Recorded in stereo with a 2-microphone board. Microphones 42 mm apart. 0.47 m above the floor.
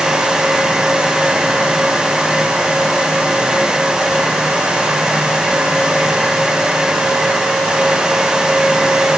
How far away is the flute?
I don't hear a flute.